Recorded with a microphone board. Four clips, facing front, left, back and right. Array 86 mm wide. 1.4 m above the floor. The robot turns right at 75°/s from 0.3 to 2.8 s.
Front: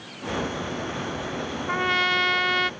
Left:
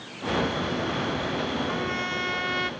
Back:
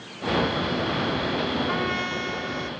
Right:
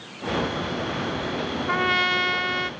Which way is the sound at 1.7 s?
75° right.